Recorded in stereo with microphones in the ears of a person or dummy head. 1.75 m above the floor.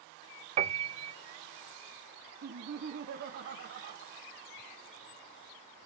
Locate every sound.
0.6 s a piano: 35° right (ahead or behind), 0.5 m
2.4 s laughter: 50° right (ahead or behind), 1.2 m